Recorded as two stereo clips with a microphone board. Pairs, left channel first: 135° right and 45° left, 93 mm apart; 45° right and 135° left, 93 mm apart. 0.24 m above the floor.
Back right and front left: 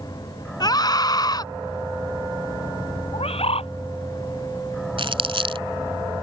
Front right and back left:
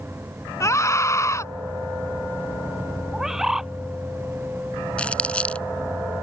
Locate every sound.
0.6 s a scream: 100° right
3.1 s a bird: 140° right
5.0 s crumpling: 30° left